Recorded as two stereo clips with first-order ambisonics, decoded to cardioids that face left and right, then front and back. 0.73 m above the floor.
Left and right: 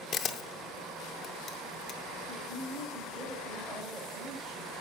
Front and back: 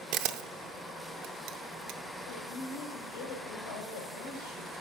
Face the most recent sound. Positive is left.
turn(degrees=-10)